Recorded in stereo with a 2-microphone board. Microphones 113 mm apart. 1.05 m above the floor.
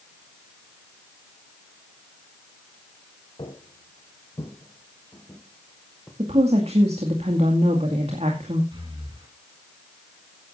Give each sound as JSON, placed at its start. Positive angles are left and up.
{"t": 3.4, "sound": "footsteps", "side_deg": 50, "distance_m": 3.0}
{"t": 6.2, "sound": "a woman speaking", "side_deg": -70, "distance_m": 2.5}
{"t": 8.7, "sound": "breathing", "side_deg": -50, "distance_m": 4.5}